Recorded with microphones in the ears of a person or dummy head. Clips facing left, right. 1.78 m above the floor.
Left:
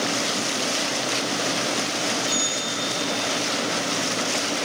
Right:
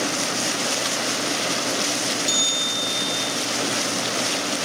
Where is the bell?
25° right (ahead or behind), 2 m.